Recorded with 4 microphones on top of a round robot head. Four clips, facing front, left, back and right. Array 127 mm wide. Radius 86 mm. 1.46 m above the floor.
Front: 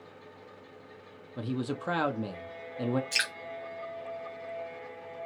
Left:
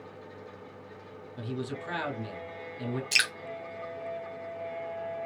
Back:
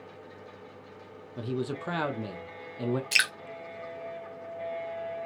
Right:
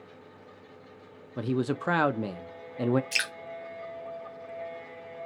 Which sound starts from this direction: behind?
Dripping, at 3.1 s.